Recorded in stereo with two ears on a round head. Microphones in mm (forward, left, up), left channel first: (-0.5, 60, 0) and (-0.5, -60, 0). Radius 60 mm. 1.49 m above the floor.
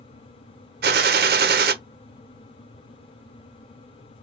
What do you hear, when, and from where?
0.8 s a gunshot: 85° right, 0.8 m